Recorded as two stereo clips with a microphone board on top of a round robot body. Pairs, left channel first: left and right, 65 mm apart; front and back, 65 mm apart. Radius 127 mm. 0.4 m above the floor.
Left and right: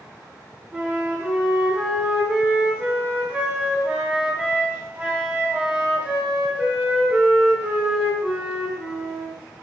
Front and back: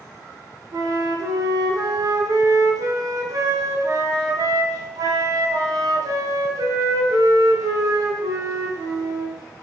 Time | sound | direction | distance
0.7 | a flute | 160° right | 0.6 m